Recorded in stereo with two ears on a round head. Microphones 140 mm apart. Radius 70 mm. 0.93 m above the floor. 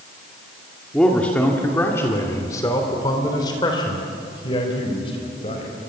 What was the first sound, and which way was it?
A man speaking, 5° left (ahead or behind).